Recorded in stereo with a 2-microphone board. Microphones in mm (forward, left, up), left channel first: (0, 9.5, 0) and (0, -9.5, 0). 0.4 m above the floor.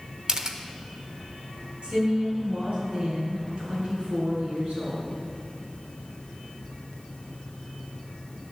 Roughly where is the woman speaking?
Right.